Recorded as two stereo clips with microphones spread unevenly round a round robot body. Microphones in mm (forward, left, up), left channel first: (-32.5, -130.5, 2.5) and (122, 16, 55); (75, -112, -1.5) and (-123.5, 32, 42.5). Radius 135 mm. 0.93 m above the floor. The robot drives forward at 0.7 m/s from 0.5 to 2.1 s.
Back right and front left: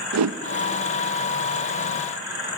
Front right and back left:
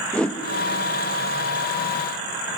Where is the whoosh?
45° left, 0.7 m.